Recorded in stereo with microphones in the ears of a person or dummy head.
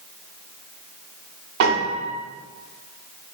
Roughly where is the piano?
Right.